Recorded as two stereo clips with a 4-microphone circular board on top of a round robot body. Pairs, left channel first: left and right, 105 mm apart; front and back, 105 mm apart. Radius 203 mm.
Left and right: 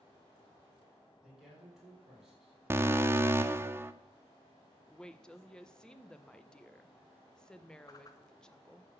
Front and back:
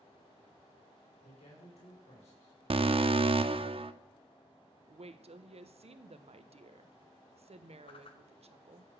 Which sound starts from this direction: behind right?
An alarm, at 2.7 s.